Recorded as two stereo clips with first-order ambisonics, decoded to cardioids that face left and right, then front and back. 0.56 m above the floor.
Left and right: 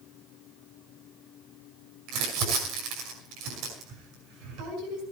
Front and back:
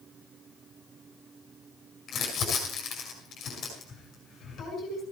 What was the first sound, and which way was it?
Crumpling, 60° right.